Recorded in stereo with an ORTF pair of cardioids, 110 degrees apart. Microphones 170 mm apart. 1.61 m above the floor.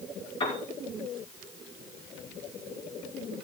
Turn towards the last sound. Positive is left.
turn(degrees=35)